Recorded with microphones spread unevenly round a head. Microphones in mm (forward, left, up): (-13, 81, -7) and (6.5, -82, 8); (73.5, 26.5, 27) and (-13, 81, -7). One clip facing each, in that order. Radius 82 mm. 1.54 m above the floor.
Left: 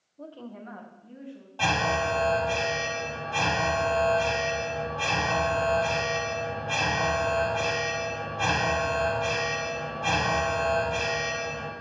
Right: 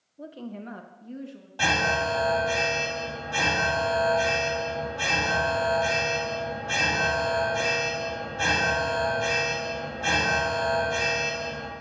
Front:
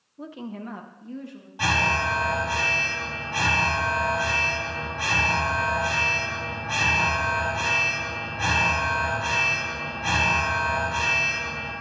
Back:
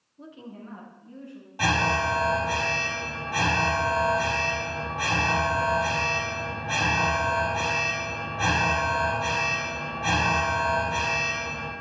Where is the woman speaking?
5° right, 0.9 m; by 1.5 s 50° right, 2 m.